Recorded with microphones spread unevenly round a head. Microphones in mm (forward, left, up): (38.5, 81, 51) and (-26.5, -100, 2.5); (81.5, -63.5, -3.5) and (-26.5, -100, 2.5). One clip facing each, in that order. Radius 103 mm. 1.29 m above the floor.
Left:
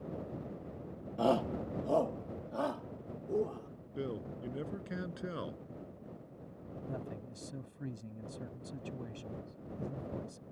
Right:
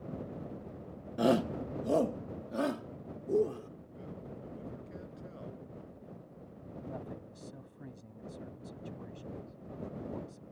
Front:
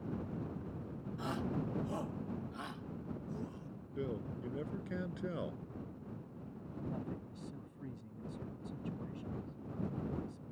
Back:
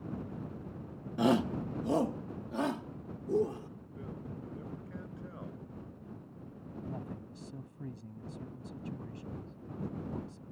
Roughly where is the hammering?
No hammering in this recording.